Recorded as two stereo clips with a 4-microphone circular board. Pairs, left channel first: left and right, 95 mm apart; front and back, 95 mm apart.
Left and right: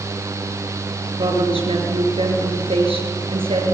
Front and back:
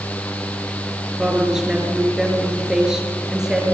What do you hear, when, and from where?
1.2 s a woman speaking: 95° right, 6 m